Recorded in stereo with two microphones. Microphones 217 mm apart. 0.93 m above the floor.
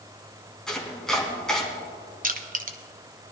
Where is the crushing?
40° right (ahead or behind), 0.9 m.